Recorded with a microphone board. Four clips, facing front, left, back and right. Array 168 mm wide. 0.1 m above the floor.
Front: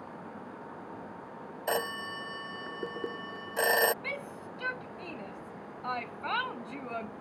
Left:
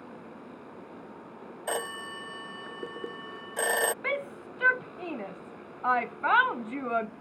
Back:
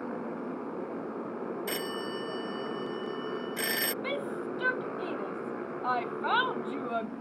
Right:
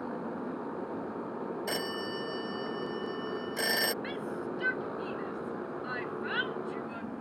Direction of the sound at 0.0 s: 150° right.